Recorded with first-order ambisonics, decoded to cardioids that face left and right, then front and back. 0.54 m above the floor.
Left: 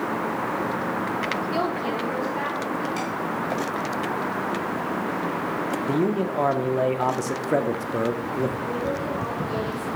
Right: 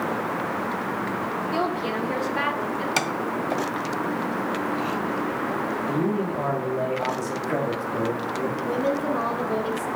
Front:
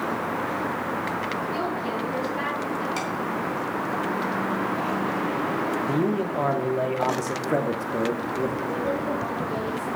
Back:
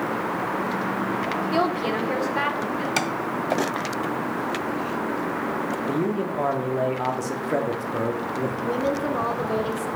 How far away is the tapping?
About 0.7 m.